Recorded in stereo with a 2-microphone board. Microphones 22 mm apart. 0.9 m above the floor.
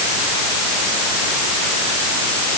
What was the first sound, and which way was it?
Only background noise.